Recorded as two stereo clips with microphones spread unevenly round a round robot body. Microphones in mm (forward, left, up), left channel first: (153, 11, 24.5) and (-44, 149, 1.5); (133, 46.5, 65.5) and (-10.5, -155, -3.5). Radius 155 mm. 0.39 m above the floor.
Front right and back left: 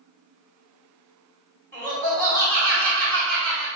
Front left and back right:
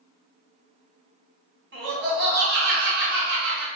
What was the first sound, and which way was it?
Laughter, 115° right.